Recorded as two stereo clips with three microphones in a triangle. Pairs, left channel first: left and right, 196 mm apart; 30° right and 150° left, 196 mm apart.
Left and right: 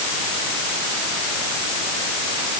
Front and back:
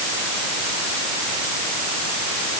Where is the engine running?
No engine running in this recording.